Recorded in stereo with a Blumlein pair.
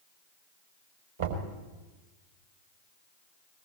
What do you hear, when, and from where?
1.2 s knocking: 70° right, 4.5 m